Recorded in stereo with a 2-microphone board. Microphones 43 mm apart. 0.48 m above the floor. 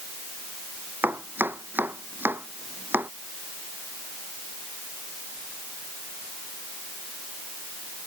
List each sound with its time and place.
1.0 s chopping: 55° right (ahead or behind)